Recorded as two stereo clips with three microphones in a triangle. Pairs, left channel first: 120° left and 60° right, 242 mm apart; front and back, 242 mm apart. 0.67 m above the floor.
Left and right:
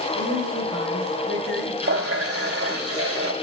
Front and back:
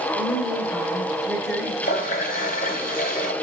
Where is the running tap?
55° right, 2 m.